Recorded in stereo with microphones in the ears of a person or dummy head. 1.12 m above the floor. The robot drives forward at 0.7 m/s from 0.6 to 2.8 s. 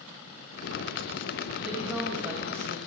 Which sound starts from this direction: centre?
A woman speaking, at 1.6 s.